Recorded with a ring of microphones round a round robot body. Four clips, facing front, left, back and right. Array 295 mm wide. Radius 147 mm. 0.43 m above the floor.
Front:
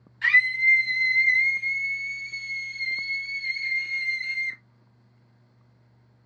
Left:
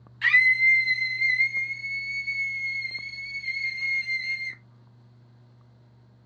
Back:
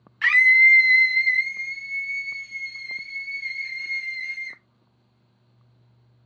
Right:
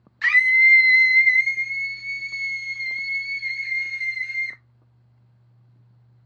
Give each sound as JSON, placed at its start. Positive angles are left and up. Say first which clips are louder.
{"t": 0.2, "sound": "a scream", "louder": "right 3 dB, back 5 dB", "azimuth_deg": -160, "distance_m": 1.0}